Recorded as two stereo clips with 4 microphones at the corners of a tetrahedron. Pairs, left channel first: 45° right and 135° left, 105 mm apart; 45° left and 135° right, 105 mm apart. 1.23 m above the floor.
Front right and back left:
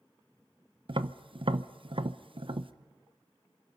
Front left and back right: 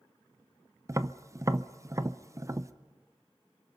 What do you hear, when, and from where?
0.9 s tapping: 165° left, 0.7 m